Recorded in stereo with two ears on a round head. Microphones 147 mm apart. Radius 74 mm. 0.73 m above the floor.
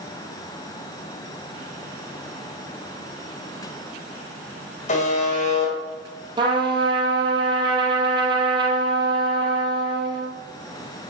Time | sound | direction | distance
4.9 | a buzzer | 45° left (ahead or behind) | 4.5 m
6.4 | a trumpet | 30° right (ahead or behind) | 3.5 m